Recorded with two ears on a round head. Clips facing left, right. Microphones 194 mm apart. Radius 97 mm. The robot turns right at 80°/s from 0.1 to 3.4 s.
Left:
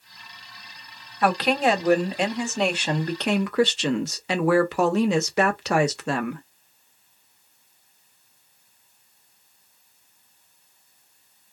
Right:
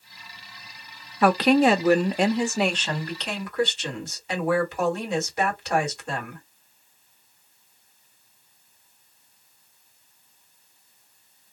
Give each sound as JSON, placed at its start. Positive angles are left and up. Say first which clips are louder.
{"t": 1.2, "sound": "a woman speaking", "louder": "right 4 dB", "azimuth_deg": -115, "distance_m": 0.8}